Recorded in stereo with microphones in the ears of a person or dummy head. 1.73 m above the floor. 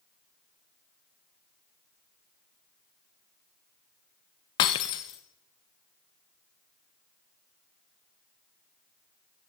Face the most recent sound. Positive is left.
turn(degrees=20)  # may be behind; listen again after turning